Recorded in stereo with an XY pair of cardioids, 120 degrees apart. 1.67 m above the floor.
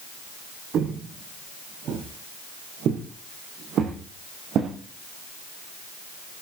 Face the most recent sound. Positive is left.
turn(degrees=-60)